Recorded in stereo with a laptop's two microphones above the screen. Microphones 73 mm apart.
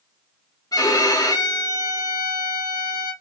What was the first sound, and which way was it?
A violin, 55° left (ahead or behind).